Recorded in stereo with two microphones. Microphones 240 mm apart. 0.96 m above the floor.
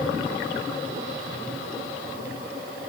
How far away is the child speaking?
I don't hear a child speaking.